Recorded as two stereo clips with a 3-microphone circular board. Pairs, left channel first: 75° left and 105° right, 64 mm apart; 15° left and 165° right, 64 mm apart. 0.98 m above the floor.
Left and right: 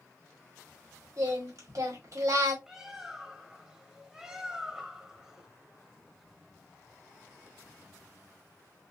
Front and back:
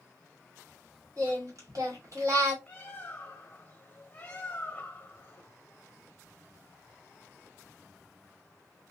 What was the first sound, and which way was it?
Singing, 130° right.